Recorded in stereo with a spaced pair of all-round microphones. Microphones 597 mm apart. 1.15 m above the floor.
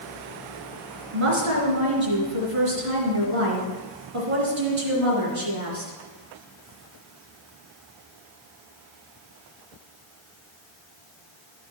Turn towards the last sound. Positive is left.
turn(degrees=-60)  # may be behind; listen again after turning